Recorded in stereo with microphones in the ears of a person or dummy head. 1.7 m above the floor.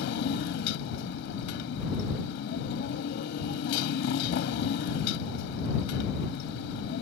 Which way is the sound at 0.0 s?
60° left (ahead or behind).